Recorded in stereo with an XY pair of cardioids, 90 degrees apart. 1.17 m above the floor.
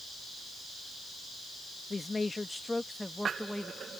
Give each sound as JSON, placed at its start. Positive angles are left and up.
{"t": 1.9, "sound": "a man speaking", "azimuth_deg": 30}